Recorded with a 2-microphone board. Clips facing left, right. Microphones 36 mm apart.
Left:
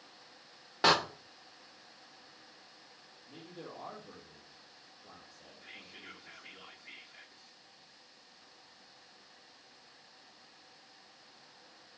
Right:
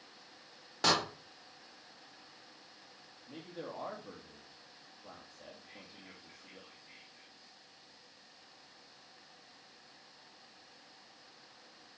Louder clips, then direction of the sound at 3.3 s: Right 3 dB; 40° right (ahead or behind).